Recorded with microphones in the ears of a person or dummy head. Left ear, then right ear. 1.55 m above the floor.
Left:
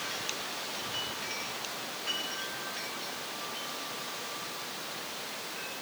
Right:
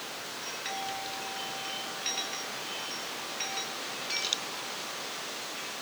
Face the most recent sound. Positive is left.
No sound to turn to.